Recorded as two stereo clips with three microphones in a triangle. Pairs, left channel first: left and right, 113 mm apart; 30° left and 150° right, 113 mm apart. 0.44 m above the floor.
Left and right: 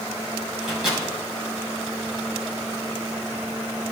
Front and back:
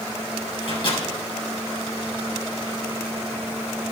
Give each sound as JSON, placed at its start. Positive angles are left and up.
{"t": 0.6, "sound": "a microwave", "azimuth_deg": -5, "distance_m": 2.5}